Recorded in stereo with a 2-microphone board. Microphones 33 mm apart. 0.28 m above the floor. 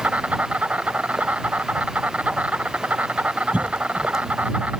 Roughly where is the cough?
Right.